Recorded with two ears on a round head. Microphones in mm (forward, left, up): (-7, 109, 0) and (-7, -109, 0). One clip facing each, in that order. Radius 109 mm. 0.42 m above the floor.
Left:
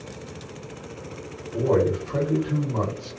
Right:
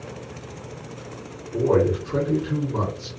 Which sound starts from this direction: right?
A man speaking, at 1.5 s.